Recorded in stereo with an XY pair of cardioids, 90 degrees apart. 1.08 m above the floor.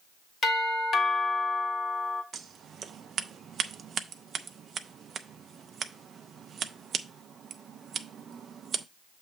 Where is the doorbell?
65° left, 1.7 m.